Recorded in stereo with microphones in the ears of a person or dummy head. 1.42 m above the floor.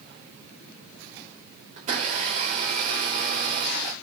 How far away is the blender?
About 3 m.